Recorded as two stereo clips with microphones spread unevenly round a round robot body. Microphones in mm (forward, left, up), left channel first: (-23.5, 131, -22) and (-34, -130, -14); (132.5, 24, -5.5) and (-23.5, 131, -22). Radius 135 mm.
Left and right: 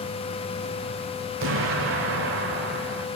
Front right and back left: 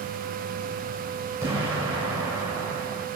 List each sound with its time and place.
1.4 s an explosion: 135° right, 2.0 m